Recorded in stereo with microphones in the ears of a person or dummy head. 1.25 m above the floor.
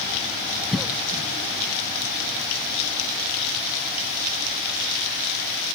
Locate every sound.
0.7 s a cough: 5° right (ahead or behind)